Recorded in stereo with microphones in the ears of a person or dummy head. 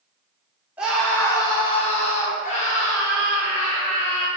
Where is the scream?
5° right (ahead or behind), 0.6 m; by 4.3 s 40° left (ahead or behind), 1.9 m.